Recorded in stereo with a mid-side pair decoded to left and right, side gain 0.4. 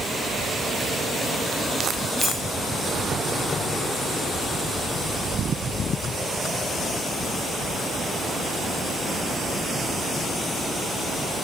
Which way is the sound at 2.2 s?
5° right.